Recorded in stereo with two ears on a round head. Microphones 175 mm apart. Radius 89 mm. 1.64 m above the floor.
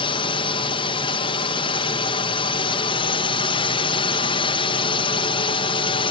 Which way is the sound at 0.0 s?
25° left (ahead or behind).